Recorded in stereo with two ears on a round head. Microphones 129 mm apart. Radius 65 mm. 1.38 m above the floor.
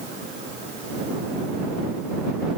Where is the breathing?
I don't hear breathing.